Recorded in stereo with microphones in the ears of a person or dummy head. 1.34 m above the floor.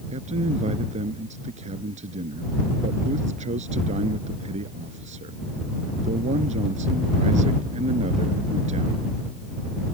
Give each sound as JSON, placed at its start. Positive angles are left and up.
{"t": 0.1, "sound": "a man speaking", "side_deg": -40}